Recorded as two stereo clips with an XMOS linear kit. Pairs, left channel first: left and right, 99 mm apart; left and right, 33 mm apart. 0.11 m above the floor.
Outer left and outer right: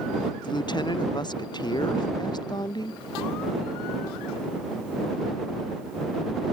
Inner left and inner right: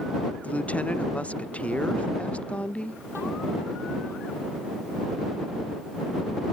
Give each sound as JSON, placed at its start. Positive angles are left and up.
{"t": 0.4, "sound": "a woman speaking", "side_deg": 50}